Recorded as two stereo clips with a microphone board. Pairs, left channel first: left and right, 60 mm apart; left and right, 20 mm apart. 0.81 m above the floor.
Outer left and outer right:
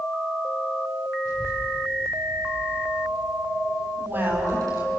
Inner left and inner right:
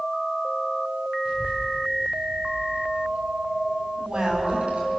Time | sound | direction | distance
1.2 | a child speaking | 75° right (ahead or behind) | 8.5 m
4.0 | a woman speaking | 40° right (ahead or behind) | 5 m